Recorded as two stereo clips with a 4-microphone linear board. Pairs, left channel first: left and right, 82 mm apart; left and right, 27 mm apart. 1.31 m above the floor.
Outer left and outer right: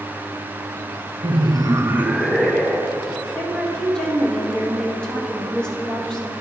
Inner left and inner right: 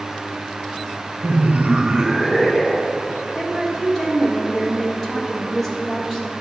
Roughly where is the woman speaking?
Centre.